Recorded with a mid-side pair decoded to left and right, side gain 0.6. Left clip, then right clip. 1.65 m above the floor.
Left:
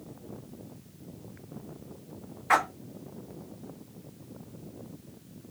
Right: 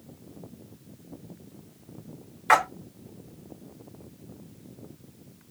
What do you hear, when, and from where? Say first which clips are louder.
2.5 s a splash: right 4 dB; 70° right, 3 m